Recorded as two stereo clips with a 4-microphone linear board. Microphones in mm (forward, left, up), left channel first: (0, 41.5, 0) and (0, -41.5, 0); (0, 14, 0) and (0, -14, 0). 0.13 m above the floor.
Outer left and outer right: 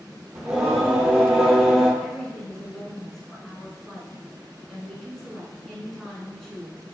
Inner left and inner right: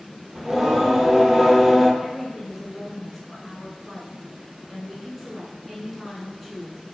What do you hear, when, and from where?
0.3 s singing: 5° right (ahead or behind), 0.7 m
2.0 s a woman speaking: 5° left (ahead or behind), 1.2 m